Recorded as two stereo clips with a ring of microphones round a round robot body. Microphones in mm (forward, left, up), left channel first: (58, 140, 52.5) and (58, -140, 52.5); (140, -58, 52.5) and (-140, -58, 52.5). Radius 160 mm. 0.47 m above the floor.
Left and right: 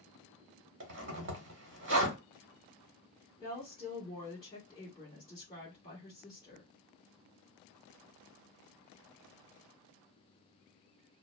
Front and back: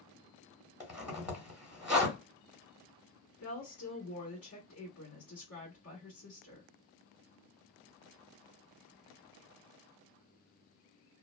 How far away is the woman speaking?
About 1.6 m.